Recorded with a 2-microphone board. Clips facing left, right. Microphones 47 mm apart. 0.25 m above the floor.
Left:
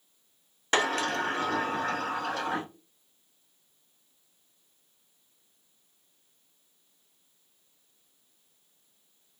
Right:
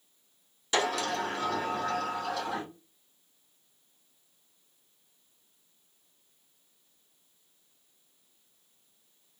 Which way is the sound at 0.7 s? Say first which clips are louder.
Left 2 dB; 45° left (ahead or behind).